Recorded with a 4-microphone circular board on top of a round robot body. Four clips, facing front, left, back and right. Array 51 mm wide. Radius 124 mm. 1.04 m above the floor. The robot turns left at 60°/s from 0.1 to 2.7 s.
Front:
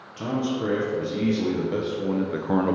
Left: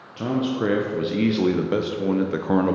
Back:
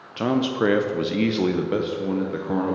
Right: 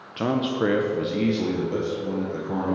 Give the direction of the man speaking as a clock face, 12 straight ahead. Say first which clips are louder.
Even, back 5 dB; 5 o'clock.